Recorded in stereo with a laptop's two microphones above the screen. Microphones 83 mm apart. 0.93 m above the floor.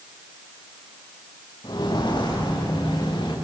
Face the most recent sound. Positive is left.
turn(degrees=75)  # may be behind; listen again after turning